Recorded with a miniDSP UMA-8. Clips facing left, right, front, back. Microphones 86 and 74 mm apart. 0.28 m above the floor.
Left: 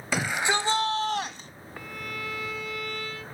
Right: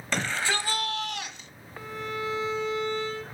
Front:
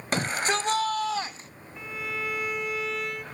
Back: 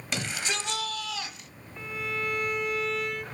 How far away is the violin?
About 1.3 m.